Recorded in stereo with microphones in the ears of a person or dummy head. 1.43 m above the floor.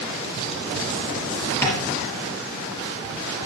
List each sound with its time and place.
1.6 s tapping: 15° left (ahead or behind), 4.5 m